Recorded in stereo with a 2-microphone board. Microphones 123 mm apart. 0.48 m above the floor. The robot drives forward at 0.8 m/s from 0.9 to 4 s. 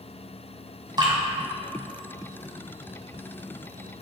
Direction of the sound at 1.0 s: 35° right (ahead or behind).